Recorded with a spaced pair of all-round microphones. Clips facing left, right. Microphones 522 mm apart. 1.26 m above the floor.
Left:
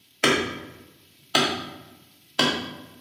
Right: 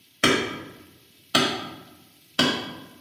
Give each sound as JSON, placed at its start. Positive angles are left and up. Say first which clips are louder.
{"t": 0.2, "sound": "hammering", "louder": "right 1 dB", "side_deg": -40, "distance_m": 1.5}